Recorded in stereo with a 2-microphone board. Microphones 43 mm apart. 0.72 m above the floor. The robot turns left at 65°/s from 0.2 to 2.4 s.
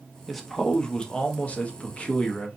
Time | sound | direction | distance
0.3 | a man speaking | 175° left | 0.6 m